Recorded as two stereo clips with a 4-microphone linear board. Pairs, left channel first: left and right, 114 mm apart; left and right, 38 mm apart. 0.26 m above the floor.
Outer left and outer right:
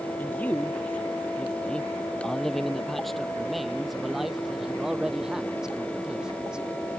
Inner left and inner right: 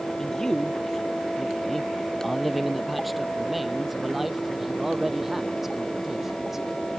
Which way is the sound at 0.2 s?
15° left (ahead or behind).